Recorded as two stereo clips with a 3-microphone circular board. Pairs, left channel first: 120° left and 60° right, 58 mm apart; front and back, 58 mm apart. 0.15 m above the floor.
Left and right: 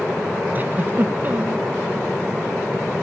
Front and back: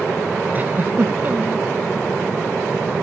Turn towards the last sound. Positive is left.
turn(degrees=-120)